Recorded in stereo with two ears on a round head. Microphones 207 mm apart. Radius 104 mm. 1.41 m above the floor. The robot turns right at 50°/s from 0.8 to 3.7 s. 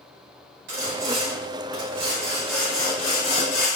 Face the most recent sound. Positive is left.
turn(degrees=60)